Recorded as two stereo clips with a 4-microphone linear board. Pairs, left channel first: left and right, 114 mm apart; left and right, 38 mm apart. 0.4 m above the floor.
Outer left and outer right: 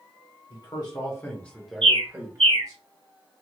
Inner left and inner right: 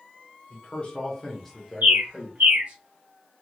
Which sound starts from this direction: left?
A man speaking, at 0.5 s.